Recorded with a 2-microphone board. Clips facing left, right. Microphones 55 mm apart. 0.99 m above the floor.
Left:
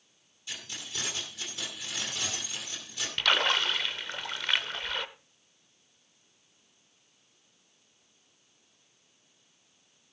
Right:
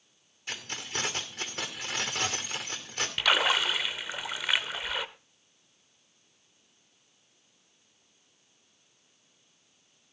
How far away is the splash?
About 0.7 m.